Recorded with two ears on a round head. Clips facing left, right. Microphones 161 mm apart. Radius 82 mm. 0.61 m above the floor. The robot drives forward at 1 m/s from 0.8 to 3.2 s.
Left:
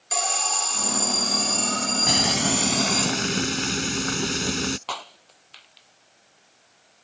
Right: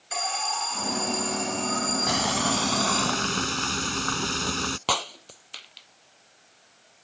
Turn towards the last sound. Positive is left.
turn(degrees=-50)  # may be behind; listen again after turning